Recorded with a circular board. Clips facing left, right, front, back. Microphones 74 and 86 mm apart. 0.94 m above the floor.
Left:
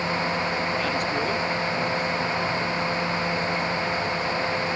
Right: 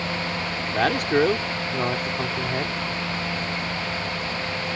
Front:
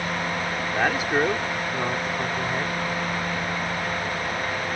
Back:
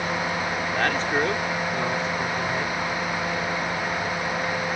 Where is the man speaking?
80° right.